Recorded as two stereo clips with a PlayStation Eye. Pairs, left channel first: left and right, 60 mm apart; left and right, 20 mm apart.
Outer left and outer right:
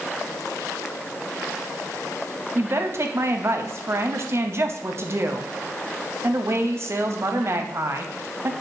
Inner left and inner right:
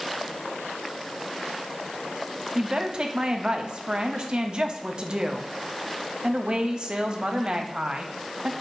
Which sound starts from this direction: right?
A woman speaking, at 2.5 s.